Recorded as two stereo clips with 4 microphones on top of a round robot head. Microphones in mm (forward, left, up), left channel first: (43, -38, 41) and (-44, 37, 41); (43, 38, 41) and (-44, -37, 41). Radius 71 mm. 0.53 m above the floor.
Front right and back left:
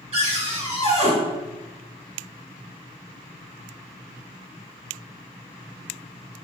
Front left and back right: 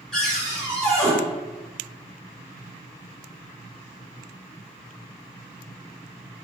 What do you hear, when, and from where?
0.1 s a cupboard door: 125° left, 1.6 m